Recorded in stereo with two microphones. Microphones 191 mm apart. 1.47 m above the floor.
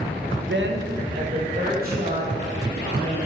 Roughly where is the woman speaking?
Right.